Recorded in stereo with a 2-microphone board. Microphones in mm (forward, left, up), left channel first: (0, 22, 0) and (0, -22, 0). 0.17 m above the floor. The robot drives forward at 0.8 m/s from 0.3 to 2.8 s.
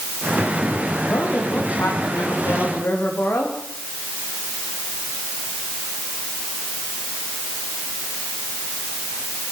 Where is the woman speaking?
55° left (ahead or behind), 9.5 m; by 3.6 s 50° left (ahead or behind), 10 m.